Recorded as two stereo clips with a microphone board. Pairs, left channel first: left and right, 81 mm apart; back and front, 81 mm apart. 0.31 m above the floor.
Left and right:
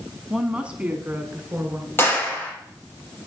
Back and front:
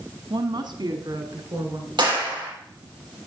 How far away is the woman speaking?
About 2.5 m.